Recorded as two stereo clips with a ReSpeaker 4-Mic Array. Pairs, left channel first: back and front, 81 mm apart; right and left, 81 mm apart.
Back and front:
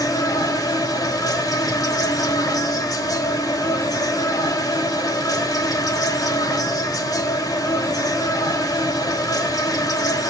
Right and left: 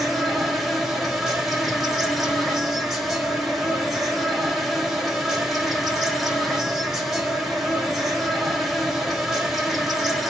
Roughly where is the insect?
Behind.